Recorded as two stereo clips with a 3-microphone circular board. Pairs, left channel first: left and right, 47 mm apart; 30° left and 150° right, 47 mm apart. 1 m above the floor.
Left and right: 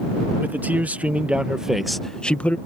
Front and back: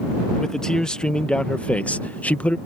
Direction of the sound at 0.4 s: 45° right.